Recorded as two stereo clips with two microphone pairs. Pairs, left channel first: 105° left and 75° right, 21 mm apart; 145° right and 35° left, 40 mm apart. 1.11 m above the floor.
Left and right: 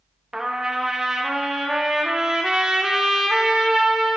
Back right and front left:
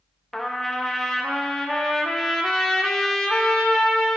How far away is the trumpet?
About 0.6 m.